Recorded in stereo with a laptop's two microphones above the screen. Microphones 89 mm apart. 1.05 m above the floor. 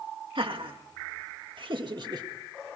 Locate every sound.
0.3 s laughter: 65° right (ahead or behind), 2 m; by 2.3 s 45° right (ahead or behind), 1.8 m